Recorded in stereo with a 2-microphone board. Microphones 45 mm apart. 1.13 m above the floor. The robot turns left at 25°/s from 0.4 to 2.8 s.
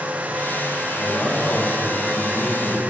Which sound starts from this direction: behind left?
A man speaking, at 0.9 s.